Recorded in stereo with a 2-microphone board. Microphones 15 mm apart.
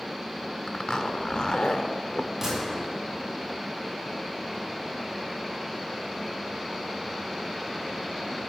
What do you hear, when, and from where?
0.7 s a zipper: 65° left (ahead or behind), 0.8 m
2.4 s a gunshot: 20° right (ahead or behind), 5 m